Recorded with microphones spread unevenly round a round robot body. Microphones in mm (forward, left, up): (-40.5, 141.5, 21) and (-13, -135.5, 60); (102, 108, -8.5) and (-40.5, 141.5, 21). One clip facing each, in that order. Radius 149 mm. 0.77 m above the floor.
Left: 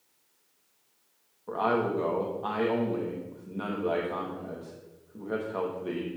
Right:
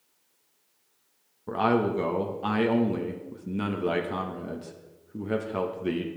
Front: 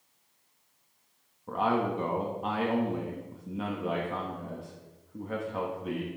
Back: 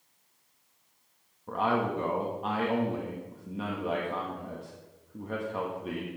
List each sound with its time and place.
1.5 s a man speaking: 80° right, 1.0 m